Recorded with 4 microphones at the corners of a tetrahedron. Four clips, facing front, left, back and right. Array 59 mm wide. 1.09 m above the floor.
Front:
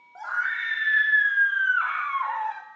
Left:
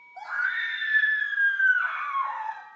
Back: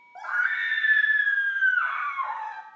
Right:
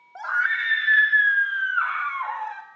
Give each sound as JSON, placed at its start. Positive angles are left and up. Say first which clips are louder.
{"t": 0.1, "sound": "a scream", "louder": "right 5 dB, back 1 dB", "azimuth_deg": -80, "distance_m": 4.0}